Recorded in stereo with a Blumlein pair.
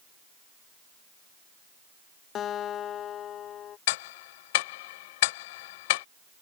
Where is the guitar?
30° left.